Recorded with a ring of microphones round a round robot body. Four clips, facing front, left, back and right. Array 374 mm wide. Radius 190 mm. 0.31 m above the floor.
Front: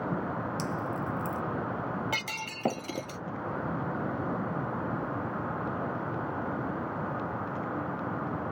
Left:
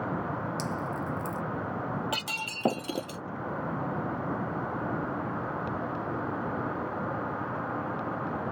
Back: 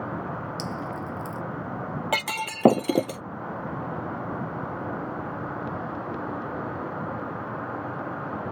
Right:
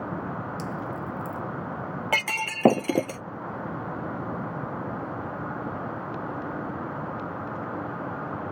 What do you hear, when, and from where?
0.6 s dripping: 105° left
2.1 s breaking glass: 145° right